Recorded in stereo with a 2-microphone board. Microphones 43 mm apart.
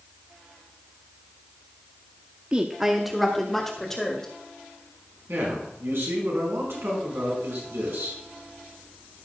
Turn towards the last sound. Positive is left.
turn(degrees=-75)  # may be behind; listen again after turning